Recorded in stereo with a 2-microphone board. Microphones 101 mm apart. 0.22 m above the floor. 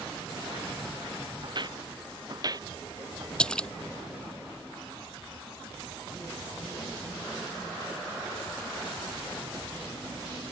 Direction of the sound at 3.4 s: 10° left (ahead or behind).